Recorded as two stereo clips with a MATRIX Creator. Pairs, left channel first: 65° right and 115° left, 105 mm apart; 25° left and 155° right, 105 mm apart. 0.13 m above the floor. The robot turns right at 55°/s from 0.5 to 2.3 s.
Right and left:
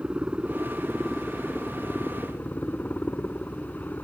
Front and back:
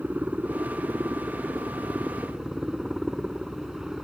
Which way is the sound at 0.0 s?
165° left.